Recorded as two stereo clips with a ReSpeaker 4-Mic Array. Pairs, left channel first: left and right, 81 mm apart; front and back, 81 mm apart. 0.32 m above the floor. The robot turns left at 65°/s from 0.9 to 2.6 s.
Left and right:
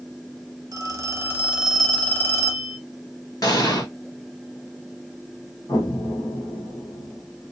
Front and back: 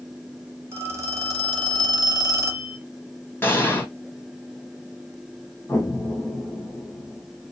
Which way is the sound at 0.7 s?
125° right.